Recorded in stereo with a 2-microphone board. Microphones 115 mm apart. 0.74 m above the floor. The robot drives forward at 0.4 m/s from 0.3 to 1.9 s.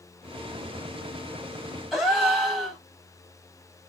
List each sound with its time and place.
1.9 s a gasp: 5° right (ahead or behind), 1.0 m